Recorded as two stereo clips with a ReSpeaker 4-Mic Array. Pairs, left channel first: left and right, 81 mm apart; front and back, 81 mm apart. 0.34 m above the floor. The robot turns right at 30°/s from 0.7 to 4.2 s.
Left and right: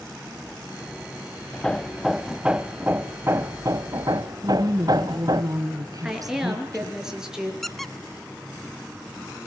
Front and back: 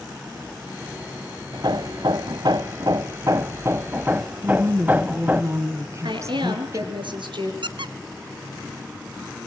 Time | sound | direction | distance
1.5 | hammering | 165° left | 1.1 m
4.4 | a woman speaking | 130° right | 3.5 m
6.0 | a woman speaking | 175° right | 7 m
7.6 | a squeak | 175° left | 0.9 m